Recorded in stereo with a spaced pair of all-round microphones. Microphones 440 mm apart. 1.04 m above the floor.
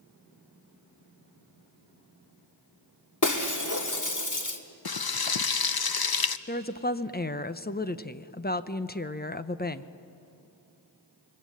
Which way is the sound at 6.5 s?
20° left (ahead or behind).